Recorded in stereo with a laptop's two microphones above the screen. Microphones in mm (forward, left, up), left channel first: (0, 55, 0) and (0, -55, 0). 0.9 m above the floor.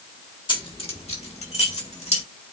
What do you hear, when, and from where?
0.5 s keys jangling: 45° left (ahead or behind), 1.3 m; by 2.2 s 85° left, 3 m